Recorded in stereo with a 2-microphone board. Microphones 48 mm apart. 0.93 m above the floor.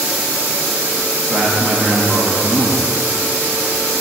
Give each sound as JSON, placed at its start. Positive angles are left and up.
{"t": 1.3, "sound": "a man speaking", "side_deg": -10, "distance_m": 1.1}